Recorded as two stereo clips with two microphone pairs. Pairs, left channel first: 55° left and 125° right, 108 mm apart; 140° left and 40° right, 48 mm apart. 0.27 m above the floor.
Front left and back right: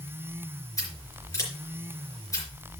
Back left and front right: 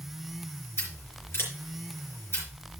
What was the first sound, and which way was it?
Scissors, 115° left.